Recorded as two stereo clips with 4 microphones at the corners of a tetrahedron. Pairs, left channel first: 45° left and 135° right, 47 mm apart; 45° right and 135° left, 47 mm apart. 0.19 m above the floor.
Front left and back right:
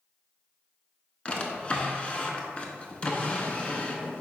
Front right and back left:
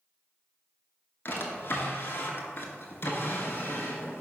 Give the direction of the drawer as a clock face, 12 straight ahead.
1 o'clock.